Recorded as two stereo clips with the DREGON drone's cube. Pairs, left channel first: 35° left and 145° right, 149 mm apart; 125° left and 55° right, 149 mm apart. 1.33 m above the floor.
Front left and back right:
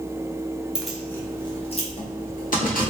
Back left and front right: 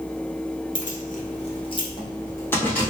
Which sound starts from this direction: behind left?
Keys jangling, at 0.8 s.